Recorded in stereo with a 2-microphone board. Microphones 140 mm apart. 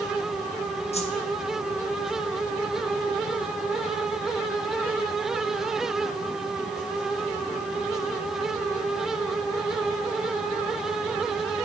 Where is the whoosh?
45° left (ahead or behind), 1.1 m.